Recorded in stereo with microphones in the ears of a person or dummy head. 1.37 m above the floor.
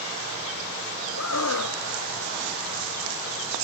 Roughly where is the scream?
Left.